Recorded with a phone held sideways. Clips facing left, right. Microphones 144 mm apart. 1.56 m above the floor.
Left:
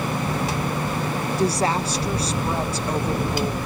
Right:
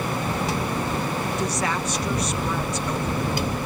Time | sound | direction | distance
1.4 | a woman speaking | 30° left (ahead or behind) | ?